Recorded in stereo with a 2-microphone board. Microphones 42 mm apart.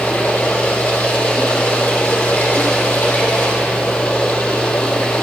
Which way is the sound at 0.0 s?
60° left (ahead or behind).